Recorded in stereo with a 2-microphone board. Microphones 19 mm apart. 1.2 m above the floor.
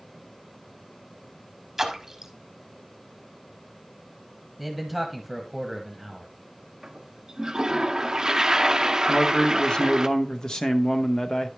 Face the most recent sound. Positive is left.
turn(degrees=40)  # may be behind; listen again after turning